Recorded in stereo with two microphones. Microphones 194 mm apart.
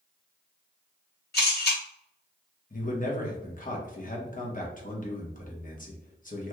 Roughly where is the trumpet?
I don't hear a trumpet.